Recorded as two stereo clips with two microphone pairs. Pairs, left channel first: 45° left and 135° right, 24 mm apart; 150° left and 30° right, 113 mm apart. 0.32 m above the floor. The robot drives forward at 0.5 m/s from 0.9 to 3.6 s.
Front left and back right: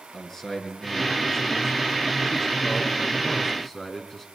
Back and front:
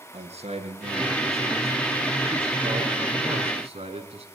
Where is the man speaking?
25° right, 5 m; by 4.2 s 30° right, 4 m.